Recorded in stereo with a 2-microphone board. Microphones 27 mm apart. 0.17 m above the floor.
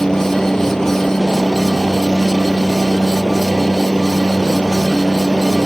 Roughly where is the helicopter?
Left.